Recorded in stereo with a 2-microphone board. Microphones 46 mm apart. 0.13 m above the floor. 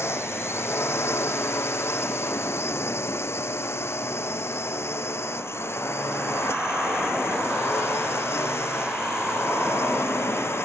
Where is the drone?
70° left (ahead or behind).